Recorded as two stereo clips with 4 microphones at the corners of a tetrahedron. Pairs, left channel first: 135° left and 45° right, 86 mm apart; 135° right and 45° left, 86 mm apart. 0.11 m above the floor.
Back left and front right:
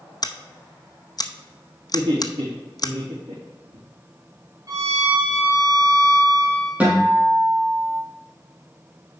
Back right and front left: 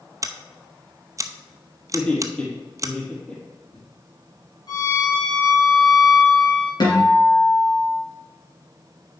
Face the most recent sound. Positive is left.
turn(degrees=-115)